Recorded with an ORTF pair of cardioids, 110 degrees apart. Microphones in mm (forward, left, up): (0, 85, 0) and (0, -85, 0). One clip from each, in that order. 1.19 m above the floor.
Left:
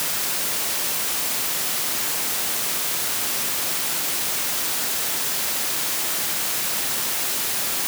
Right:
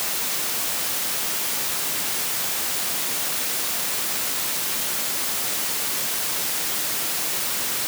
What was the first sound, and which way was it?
Only background noise.